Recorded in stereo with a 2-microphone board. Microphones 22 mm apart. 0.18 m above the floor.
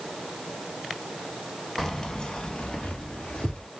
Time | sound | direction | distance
1.8 | keys jangling | 15° left (ahead or behind) | 0.9 m